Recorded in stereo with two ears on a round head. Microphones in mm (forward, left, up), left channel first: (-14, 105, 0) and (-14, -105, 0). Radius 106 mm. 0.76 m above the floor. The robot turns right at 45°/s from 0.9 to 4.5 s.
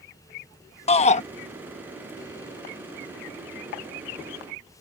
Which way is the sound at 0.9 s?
25° left (ahead or behind).